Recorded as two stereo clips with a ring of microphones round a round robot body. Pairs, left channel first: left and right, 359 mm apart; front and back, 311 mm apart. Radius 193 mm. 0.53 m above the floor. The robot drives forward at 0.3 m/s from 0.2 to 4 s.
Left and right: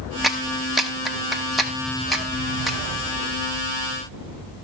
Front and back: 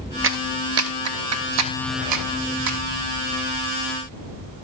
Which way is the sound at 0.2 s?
Straight behind.